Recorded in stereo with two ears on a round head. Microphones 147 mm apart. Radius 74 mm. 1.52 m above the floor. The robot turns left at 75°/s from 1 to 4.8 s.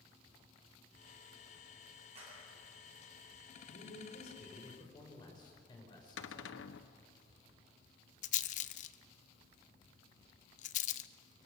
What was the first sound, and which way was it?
A clap, 40° right (ahead or behind).